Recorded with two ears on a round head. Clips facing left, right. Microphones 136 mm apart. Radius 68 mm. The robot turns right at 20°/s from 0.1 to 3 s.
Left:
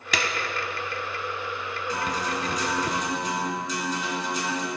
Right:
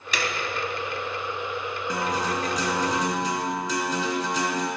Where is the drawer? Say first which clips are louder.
Even; 65° left (ahead or behind), 0.8 m; by 2.9 s 50° left (ahead or behind), 0.8 m.